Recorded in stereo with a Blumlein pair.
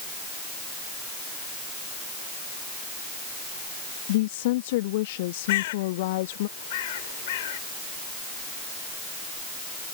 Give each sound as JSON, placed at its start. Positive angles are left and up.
{"t": 4.1, "sound": "a woman speaking", "azimuth_deg": 50}
{"t": 5.5, "sound": "a bird", "azimuth_deg": 55}